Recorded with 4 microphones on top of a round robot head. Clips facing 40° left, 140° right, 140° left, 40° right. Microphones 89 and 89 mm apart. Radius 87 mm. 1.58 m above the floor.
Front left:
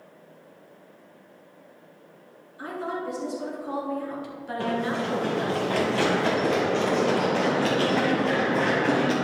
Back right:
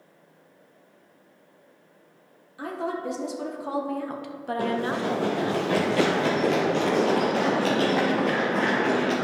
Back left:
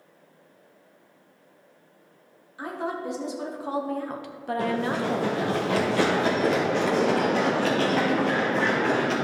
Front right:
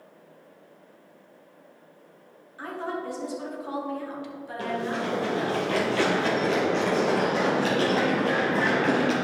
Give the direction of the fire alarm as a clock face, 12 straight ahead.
No fire alarm in this recording.